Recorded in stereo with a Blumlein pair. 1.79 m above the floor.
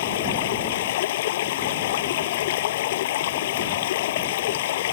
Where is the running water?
55° left.